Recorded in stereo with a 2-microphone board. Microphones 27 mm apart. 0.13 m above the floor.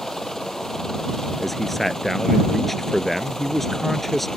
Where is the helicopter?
15° left (ahead or behind).